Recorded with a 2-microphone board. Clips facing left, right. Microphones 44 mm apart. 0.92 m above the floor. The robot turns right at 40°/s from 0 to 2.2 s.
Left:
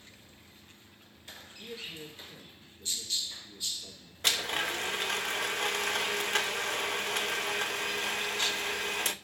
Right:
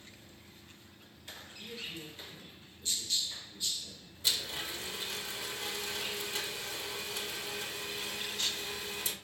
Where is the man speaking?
20° left (ahead or behind), 1.9 m; by 4.1 s 45° left (ahead or behind), 1.9 m.